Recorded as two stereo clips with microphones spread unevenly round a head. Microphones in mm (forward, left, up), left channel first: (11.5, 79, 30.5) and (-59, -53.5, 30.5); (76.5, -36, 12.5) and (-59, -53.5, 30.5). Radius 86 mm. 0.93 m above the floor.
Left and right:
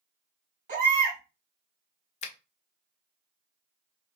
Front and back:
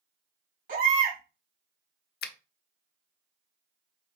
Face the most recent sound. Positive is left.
turn(degrees=10)